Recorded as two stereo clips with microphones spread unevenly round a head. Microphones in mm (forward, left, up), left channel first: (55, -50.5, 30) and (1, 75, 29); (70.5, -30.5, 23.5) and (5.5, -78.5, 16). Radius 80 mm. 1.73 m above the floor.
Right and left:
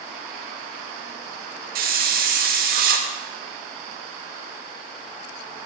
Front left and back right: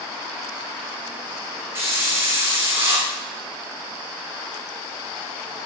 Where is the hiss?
145° left, 0.6 m.